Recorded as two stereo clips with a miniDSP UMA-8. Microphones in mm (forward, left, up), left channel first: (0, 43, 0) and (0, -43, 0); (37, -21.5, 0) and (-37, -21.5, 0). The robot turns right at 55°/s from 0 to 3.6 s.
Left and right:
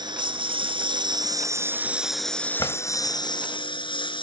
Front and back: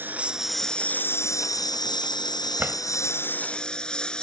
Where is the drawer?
120° left; by 2.8 s 130° left.